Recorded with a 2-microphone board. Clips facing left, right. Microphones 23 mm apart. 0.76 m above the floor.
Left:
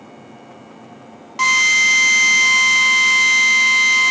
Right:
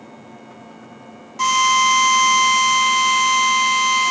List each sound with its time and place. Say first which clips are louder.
1.4 s a drill: left 2 dB; 40° left (ahead or behind), 0.6 m